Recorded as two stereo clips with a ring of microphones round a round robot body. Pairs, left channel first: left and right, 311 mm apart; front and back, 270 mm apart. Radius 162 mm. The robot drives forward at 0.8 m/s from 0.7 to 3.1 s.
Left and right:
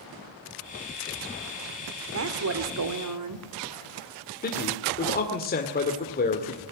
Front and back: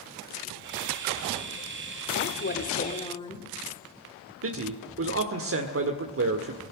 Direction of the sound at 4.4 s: 150° left.